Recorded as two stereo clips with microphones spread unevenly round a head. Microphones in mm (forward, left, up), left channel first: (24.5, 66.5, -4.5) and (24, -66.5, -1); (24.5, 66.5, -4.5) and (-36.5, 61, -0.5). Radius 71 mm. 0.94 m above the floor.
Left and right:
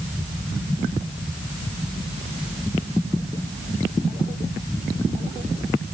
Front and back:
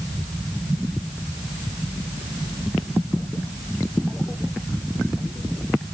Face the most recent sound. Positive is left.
No sound to turn to.